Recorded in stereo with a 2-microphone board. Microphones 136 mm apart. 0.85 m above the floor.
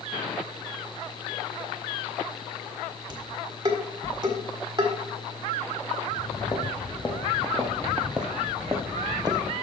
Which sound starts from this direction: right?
Dishes clattering, at 3.1 s.